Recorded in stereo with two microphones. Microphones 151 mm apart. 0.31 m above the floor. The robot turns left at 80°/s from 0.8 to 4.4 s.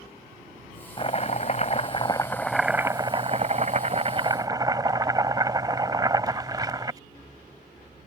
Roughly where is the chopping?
Behind left.